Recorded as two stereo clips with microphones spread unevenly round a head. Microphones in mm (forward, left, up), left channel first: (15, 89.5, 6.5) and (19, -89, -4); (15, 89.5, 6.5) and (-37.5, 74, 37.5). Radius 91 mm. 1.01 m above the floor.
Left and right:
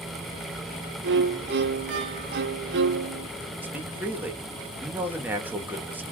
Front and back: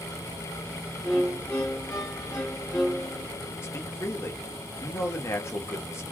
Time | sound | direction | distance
1.0 | a violin | 90° right | 0.8 m
3.6 | a man speaking | 10° right | 1.3 m